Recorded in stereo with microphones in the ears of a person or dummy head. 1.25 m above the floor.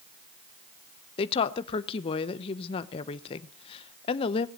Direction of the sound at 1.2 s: 30° left (ahead or behind).